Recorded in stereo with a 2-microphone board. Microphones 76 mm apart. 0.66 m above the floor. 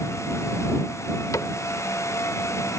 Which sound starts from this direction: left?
A cupboard door, at 1.3 s.